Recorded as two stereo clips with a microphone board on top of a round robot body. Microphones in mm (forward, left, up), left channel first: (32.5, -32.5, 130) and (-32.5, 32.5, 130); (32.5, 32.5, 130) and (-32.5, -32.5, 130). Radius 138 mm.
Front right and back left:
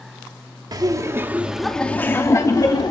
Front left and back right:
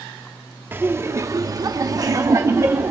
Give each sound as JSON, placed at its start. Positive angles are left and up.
{"t": 0.7, "sound": "laughter", "azimuth_deg": 165, "distance_m": 1.3}